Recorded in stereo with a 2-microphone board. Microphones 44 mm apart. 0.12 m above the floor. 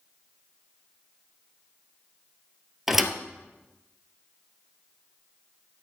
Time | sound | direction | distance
2.9 | a thud | 5° right (ahead or behind) | 0.9 m